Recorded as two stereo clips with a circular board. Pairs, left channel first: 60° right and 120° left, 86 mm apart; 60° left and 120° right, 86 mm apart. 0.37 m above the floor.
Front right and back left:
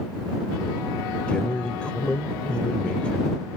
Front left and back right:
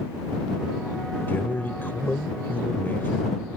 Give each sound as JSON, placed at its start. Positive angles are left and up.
{"t": 1.3, "sound": "a man speaking", "azimuth_deg": 10}